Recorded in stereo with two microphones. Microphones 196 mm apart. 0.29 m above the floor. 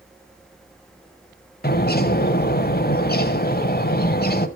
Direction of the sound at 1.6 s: 55° left (ahead or behind).